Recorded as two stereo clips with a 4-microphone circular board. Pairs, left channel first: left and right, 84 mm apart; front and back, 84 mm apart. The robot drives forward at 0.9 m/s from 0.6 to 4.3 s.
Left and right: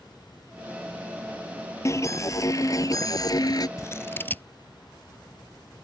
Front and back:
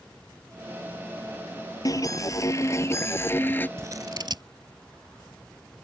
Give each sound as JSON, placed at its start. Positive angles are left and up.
{"t": 1.9, "sound": "an alarm", "azimuth_deg": 40}
{"t": 3.8, "sound": "scissors", "azimuth_deg": 135}